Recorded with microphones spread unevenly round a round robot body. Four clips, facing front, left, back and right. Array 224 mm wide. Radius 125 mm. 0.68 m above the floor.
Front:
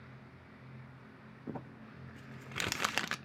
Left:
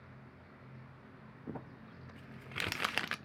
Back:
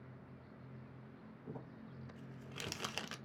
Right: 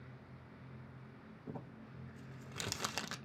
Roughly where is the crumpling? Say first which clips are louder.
Left 3 dB, front 6 dB; ahead.